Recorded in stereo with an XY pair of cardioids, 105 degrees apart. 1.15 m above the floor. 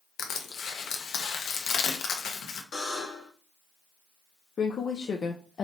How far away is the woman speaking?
About 0.6 m.